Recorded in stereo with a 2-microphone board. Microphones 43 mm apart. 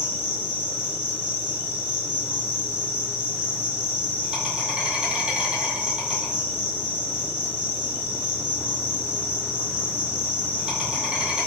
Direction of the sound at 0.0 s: 25° right (ahead or behind).